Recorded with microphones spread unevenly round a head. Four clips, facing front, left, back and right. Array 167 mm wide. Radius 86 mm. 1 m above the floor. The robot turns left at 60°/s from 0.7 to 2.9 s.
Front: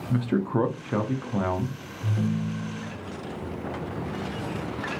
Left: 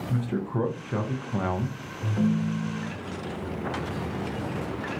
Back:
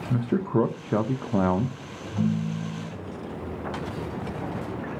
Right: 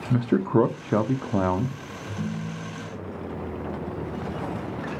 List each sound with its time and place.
0.1 s a man speaking: 95° right, 0.5 m; by 1.8 s 160° right, 0.5 m
2.0 s a ringtone: 90° left, 0.9 m; by 2.9 s 40° left, 0.9 m